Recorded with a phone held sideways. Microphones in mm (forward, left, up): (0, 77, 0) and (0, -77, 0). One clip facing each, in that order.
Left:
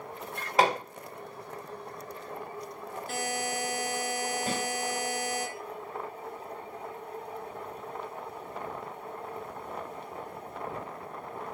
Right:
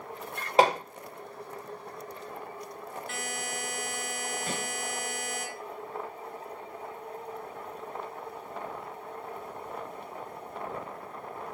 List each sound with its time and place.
0.6 s hammering: 30° right (ahead or behind), 1.1 m
3.1 s a buzzer: 40° left (ahead or behind), 0.6 m
4.5 s a snare drum: 70° left (ahead or behind), 2 m